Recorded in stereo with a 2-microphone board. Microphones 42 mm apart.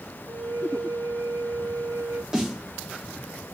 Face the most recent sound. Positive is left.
turn(degrees=-15)  # may be behind; listen again after turning